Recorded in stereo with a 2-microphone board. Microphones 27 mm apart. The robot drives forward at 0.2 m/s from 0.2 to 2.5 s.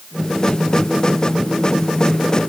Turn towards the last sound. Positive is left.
No sound to turn to.